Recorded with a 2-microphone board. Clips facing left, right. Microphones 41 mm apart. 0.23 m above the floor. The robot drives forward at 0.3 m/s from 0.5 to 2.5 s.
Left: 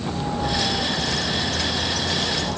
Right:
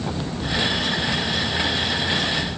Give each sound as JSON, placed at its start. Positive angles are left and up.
{"t": 0.1, "sound": "a bird", "side_deg": 85}